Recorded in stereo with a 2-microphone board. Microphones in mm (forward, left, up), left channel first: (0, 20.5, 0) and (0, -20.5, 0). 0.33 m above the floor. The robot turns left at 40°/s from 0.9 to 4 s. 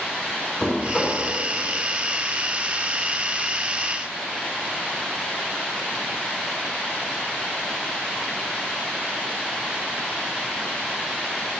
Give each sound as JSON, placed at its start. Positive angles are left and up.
{"t": 0.6, "sound": "knocking", "side_deg": 15, "distance_m": 3.0}